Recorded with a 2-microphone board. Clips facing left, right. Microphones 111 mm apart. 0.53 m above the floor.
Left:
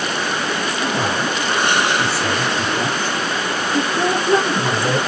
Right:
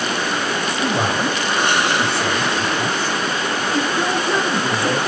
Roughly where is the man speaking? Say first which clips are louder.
Right 2 dB; right.